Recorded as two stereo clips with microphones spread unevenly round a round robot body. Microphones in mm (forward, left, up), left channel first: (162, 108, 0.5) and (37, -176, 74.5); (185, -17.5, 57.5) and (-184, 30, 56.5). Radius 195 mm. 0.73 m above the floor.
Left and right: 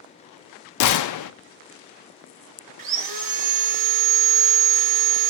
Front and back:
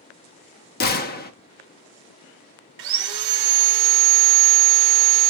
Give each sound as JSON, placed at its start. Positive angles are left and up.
{"t": 0.8, "sound": "a gunshot", "azimuth_deg": 60, "distance_m": 0.6}
{"t": 2.8, "sound": "sawing", "azimuth_deg": -150, "distance_m": 1.0}